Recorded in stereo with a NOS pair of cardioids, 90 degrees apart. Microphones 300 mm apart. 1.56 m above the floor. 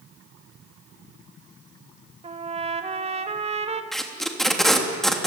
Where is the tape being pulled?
Straight ahead, 3 m.